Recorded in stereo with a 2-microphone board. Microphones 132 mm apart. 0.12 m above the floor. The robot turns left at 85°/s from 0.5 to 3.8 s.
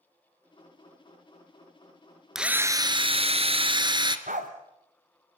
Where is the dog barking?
85° right, 3 m.